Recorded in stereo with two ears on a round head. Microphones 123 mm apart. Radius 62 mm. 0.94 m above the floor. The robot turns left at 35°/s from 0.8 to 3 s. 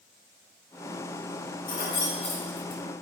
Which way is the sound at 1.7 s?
75° left (ahead or behind).